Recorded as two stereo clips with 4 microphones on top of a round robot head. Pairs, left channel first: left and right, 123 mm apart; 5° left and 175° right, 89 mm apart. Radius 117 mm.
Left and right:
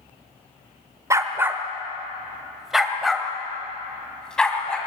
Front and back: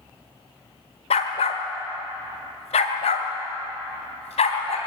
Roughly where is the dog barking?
Ahead.